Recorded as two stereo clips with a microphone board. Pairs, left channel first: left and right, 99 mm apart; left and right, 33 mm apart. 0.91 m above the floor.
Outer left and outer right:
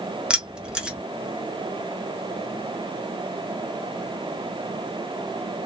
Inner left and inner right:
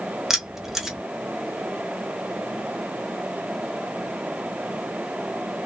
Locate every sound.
0.3 s keys jangling: 10° right (ahead or behind), 0.7 m